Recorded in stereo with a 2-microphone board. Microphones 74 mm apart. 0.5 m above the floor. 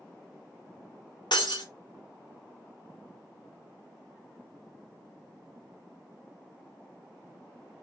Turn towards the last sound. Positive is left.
turn(degrees=80)